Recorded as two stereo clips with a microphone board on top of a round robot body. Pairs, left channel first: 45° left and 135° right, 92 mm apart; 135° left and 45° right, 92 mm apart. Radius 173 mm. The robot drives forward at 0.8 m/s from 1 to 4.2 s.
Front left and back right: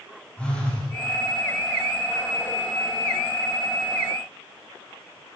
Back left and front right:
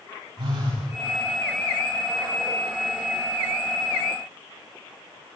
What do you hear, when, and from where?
0.4 s a phone buzzing: 35° right, 6.5 m